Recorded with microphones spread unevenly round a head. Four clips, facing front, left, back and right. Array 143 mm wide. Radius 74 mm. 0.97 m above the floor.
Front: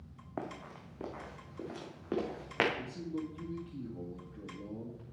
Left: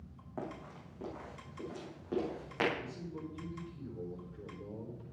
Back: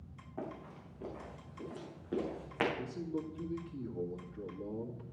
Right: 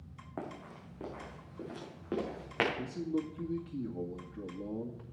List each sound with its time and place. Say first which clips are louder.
0.4 s running footsteps: even, front 2 dB; 10° right, 4.5 m; by 2.7 s 20° right, 5.5 m
2.8 s a man speaking: right 8 dB, even; 100° right, 2 m